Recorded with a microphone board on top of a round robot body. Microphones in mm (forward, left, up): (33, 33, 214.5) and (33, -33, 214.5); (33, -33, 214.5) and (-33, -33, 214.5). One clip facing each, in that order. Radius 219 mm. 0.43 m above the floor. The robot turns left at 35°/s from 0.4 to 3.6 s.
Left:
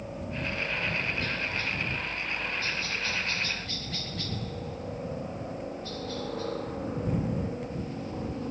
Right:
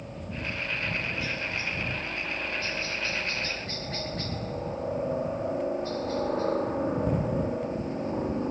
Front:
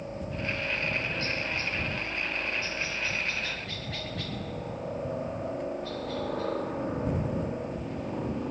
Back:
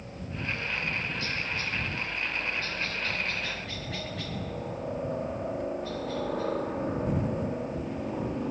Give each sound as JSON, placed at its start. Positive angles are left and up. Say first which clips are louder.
{"t": 0.0, "sound": "a helicopter", "louder": "left 2 dB, front 3 dB", "azimuth_deg": 15}